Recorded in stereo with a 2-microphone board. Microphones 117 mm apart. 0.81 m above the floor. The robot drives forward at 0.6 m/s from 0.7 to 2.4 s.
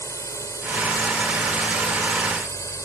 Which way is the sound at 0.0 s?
25° left (ahead or behind).